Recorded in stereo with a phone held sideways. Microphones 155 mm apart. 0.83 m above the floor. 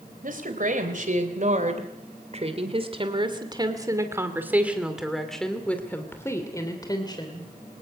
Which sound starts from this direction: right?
A woman speaking, at 0.2 s.